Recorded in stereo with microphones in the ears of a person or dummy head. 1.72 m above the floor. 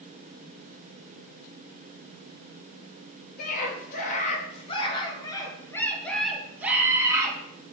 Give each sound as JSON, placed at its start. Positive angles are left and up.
{"t": 3.4, "sound": "a scream", "side_deg": 50, "distance_m": 2.0}